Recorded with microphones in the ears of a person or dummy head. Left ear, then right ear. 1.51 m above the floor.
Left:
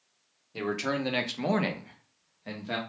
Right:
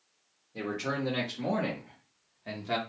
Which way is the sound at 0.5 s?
70° left (ahead or behind).